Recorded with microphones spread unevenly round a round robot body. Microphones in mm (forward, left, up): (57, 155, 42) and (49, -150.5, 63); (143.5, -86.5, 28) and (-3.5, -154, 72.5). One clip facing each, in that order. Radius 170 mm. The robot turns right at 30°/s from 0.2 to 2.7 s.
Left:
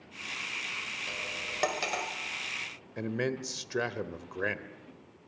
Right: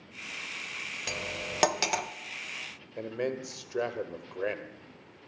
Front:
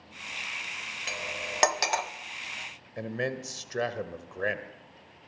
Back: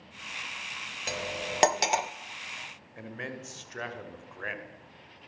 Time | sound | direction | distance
1.1 | cutlery clinking | 105° right | 1.1 m
3.0 | a man speaking | 45° left | 1.8 m